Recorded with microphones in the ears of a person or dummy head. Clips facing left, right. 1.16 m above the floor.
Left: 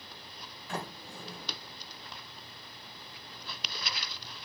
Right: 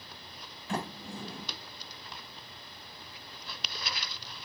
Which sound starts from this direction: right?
A sliding door, at 0.7 s.